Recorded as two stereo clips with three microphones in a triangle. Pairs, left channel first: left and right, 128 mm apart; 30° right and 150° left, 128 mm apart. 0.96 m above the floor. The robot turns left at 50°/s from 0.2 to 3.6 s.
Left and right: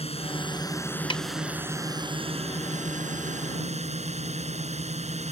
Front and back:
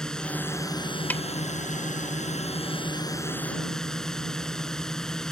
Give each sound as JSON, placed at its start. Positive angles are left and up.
{"t": 0.0, "sound": "a drone", "azimuth_deg": 55}
{"t": 1.1, "sound": "a snare drum", "azimuth_deg": 45}